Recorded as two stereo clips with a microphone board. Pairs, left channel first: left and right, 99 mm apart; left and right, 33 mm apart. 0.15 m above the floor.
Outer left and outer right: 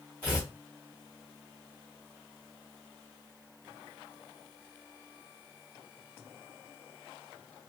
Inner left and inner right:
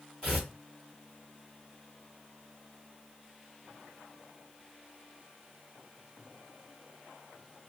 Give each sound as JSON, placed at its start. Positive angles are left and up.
{"t": 0.2, "sound": "tearing paper", "side_deg": -20, "distance_m": 2.0}